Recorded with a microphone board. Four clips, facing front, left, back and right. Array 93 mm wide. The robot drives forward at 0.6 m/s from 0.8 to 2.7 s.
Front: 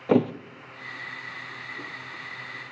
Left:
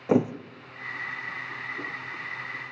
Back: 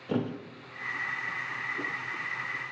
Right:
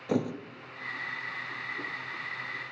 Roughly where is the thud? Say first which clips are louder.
Left 7 dB, front 10 dB; ahead left.